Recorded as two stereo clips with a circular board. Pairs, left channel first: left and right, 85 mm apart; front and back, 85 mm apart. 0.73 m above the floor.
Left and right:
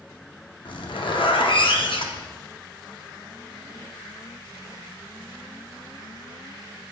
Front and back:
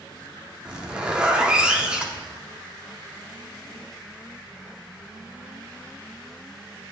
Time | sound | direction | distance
0.7 | a zipper | 100° left | 0.6 m